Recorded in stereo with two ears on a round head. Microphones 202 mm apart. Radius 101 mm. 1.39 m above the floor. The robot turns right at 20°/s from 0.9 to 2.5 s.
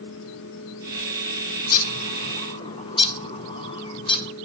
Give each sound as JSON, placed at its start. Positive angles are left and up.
{"t": 1.6, "sound": "a bird", "side_deg": 40, "distance_m": 1.0}